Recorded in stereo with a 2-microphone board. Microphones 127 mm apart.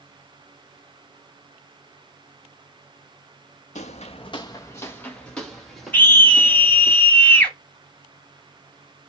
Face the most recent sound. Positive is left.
turn(degrees=15)  # may be behind; listen again after turning